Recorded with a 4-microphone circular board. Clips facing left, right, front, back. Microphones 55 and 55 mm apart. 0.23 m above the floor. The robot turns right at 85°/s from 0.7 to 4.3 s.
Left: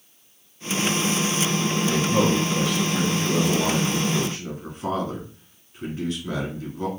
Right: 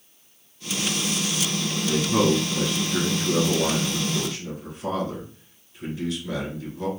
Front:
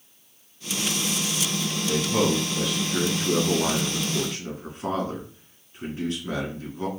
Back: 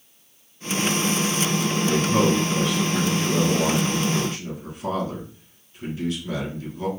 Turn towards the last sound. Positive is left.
turn(degrees=55)